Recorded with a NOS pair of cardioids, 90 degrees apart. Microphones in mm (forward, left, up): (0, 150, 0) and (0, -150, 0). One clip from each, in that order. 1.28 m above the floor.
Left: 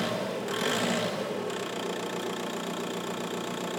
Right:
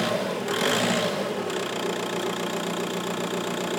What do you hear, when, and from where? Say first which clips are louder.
0.0 s an engine running: right 5 dB; 30° right, 1.4 m